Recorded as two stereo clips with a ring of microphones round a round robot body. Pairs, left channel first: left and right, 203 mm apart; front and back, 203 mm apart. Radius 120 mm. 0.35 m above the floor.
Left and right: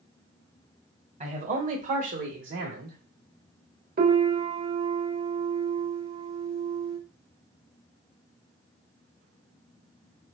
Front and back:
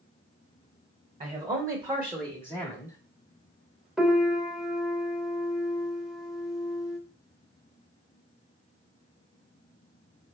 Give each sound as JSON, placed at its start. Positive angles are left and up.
{"t": 1.2, "sound": "a man speaking", "azimuth_deg": -125, "distance_m": 1.4}
{"t": 4.0, "sound": "a piano", "azimuth_deg": -90, "distance_m": 1.1}